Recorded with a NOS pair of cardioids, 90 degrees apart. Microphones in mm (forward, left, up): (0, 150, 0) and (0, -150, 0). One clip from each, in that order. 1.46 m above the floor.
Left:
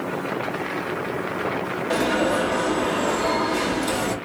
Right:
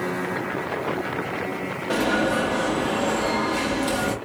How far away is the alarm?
About 1.2 m.